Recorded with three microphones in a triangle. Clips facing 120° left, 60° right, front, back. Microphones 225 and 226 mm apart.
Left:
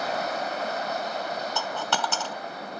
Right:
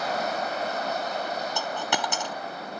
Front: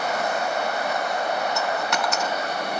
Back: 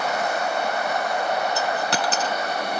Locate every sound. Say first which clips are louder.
1.6 s a dropped coin: even, back 1 dB; 130° right, 0.5 m